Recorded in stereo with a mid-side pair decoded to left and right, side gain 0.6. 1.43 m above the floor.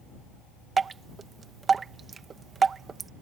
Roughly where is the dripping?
Ahead right.